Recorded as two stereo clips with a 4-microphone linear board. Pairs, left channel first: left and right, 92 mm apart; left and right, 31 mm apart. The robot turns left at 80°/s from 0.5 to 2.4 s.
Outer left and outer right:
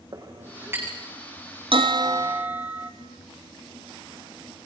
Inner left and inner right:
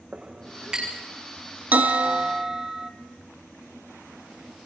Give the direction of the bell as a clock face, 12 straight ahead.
4 o'clock.